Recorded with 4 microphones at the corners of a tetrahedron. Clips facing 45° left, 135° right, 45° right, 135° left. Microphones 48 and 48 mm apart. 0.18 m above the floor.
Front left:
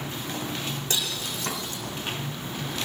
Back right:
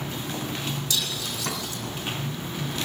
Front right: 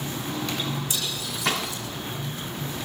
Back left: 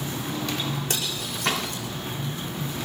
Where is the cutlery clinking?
100° left, 5 m.